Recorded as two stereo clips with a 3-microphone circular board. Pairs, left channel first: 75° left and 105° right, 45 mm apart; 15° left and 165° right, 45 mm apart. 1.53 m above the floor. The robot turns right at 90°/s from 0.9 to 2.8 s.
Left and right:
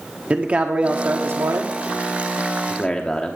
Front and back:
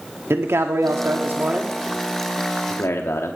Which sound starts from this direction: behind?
A man speaking, at 0.3 s.